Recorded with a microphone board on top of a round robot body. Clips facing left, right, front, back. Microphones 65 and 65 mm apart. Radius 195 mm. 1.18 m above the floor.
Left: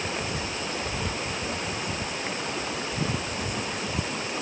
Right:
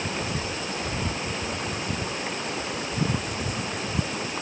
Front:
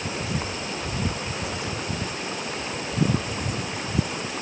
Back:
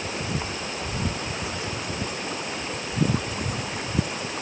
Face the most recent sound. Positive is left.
No sound to turn to.